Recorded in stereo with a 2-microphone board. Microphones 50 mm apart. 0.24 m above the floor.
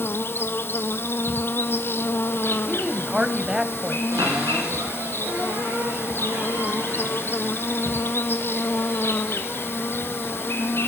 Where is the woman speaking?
15° right (ahead or behind), 1.1 m.